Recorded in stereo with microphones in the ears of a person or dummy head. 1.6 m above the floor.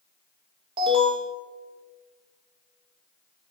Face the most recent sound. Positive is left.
turn(degrees=-35)  # may be behind; listen again after turning